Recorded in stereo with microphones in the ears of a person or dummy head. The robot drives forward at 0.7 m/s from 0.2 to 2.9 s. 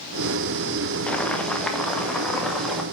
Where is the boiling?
5° left (ahead or behind), 1.1 m; by 2.8 s centre (ahead or behind), 2.5 m.